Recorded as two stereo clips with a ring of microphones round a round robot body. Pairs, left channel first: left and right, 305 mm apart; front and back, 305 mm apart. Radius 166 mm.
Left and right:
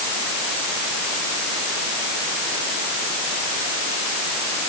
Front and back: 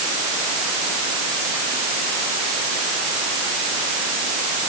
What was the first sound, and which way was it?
Only background noise.